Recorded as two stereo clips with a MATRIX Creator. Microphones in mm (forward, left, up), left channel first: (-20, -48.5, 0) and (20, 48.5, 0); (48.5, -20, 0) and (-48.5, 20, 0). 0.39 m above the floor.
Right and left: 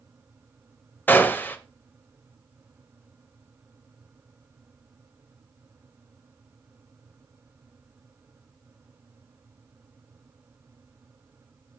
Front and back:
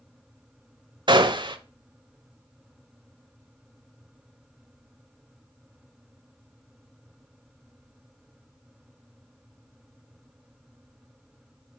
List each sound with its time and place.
1.1 s a gunshot: straight behind, 0.9 m